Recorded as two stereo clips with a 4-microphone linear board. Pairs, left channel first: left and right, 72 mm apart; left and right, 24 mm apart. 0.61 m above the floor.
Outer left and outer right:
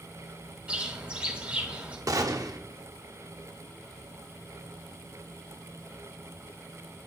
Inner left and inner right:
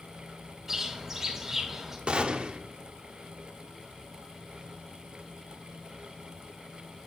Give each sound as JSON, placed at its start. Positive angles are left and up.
{"t": 0.7, "sound": "a bird", "side_deg": -15, "distance_m": 2.0}
{"t": 2.1, "sound": "a gunshot", "side_deg": -55, "distance_m": 0.9}